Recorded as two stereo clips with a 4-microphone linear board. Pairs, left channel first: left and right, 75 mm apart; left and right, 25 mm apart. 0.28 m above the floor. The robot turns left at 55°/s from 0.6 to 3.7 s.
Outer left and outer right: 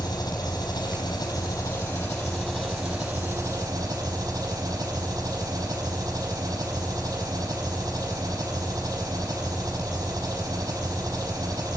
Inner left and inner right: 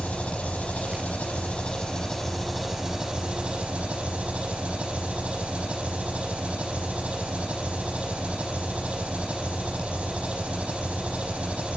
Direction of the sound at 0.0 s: 120° left.